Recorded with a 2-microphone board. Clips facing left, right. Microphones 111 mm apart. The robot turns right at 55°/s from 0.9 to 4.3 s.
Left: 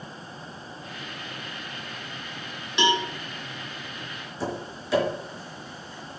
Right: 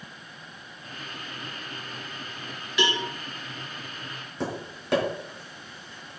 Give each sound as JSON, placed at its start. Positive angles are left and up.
{"t": 2.8, "sound": "a cowbell", "side_deg": 25, "distance_m": 1.5}
{"t": 4.4, "sound": "tapping", "side_deg": -60, "distance_m": 4.5}